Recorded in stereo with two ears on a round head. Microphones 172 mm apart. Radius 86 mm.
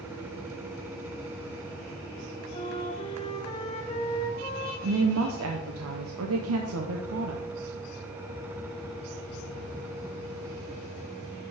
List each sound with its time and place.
2.5 s a flute: 30° left (ahead or behind), 1.0 m
4.8 s a woman speaking: 85° right, 0.8 m